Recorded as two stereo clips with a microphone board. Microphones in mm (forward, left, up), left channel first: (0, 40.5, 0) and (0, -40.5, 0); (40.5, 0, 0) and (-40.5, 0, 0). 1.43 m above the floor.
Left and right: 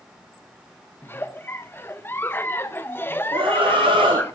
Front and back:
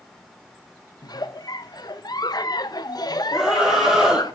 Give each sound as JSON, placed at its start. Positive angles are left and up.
{"t": 1.0, "sound": "a giggle", "azimuth_deg": 30, "distance_m": 0.9}
{"t": 3.3, "sound": "a scream", "azimuth_deg": -100, "distance_m": 3.5}